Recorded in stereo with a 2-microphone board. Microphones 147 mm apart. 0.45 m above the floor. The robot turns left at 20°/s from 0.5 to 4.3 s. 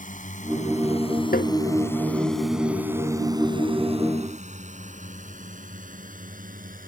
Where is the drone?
60° left (ahead or behind); by 6.9 s 65° right (ahead or behind).